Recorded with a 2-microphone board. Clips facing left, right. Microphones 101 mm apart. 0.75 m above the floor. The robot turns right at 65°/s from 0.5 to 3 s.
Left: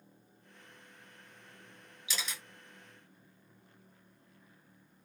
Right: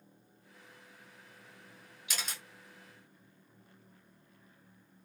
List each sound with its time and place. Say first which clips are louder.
2.1 s a camera shutter: left 1 dB; 50° right (ahead or behind), 1.6 m; by 2.4 s 35° right (ahead or behind), 1.6 m